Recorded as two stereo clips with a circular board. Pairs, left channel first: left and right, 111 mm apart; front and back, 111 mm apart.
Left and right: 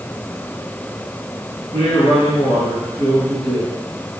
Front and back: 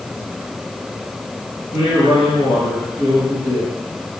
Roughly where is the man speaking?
Ahead left.